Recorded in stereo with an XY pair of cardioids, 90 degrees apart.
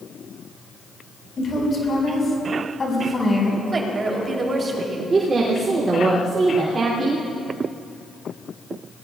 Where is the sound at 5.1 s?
45° right, 3 m.